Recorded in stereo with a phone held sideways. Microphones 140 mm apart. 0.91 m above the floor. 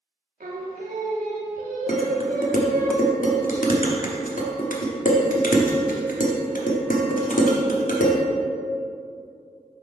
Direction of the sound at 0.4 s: 80° right.